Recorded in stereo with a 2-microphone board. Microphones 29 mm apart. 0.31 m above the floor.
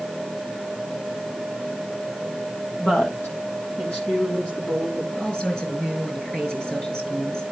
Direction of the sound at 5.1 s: 30° left (ahead or behind).